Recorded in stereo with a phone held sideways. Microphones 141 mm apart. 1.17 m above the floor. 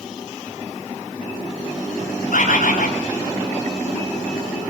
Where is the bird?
80° left, 6 m.